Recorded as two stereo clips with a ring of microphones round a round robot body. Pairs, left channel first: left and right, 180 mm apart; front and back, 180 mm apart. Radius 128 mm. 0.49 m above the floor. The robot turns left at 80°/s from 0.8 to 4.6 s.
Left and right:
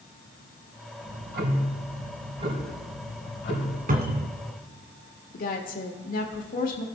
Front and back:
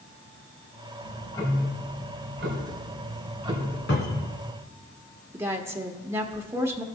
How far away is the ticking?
About 2.5 m.